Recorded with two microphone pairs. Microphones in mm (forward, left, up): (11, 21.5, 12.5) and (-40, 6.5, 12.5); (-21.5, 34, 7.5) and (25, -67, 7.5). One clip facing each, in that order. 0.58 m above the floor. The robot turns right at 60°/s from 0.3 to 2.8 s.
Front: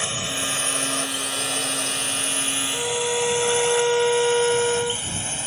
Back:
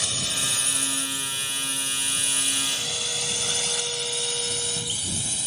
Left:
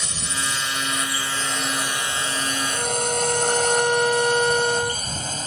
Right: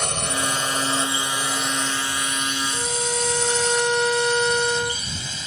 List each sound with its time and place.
0.0 s a drone: 45° right; by 5.5 s 70° left
2.7 s a violin: 25° left; by 5.0 s 30° left